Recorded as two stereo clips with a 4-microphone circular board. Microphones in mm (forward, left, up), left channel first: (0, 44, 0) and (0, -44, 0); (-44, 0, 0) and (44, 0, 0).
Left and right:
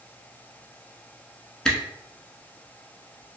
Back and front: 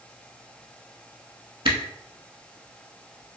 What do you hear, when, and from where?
1.6 s a camera shutter: 10° left, 0.6 m